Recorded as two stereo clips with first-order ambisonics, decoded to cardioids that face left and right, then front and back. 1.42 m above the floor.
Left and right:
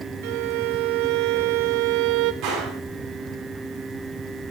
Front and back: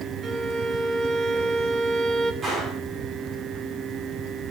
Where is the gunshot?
110° right, 9 m.